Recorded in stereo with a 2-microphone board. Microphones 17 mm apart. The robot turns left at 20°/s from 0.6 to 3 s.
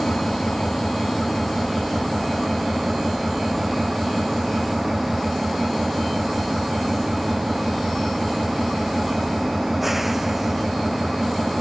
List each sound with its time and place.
0.0 s an engine running: 30° left; by 11.6 s 15° right